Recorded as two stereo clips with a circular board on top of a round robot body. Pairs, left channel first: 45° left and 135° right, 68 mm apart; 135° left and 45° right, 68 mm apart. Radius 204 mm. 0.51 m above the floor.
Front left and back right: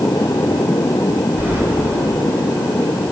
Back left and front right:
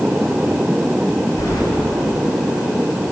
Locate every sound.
1.4 s keys jangling: 160° left, 1.9 m